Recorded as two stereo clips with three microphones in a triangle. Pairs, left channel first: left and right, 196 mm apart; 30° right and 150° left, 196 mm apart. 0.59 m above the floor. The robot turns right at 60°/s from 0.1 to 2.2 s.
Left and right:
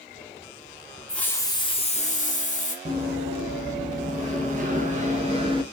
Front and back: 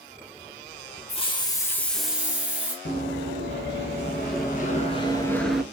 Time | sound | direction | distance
1.1 | a hiss | 5° left | 0.5 m
2.9 | running footsteps | 35° right | 1.5 m